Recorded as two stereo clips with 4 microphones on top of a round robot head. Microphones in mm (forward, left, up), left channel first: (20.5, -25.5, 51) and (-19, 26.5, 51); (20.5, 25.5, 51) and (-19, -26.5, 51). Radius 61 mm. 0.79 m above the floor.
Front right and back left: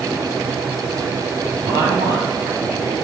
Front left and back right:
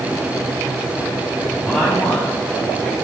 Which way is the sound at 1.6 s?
135° left.